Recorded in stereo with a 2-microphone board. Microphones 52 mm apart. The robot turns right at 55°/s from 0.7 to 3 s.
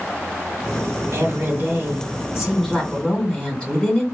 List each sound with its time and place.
1.1 s a woman speaking: 90° right, 3 m; by 4.0 s 15° left, 3 m